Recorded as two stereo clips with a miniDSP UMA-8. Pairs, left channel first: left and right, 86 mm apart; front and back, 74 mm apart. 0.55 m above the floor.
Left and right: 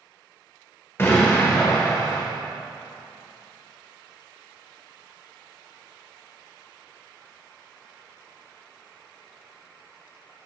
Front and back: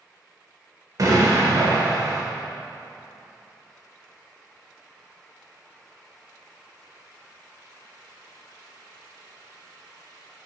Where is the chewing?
I don't hear chewing.